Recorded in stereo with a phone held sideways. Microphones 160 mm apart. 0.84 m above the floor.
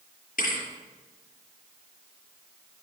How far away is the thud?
About 6 m.